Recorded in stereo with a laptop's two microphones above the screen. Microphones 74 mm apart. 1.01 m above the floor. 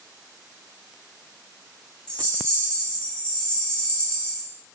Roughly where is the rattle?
Centre.